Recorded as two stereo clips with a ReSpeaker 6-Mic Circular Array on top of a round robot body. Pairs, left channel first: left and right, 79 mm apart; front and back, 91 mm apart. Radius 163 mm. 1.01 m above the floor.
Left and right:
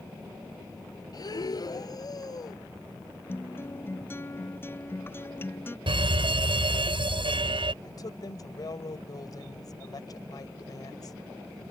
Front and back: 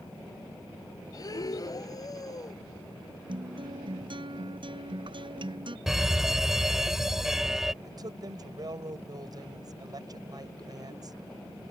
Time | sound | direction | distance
1.1 | breathing | 50° left | ?
3.3 | a guitar | 150° left | ?
5.9 | a fire alarm | 95° right | ?
7.8 | a woman speaking | 135° left | ?